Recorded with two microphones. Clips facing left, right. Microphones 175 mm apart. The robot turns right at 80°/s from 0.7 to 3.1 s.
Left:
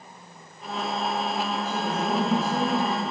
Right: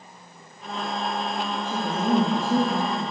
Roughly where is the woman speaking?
Behind right.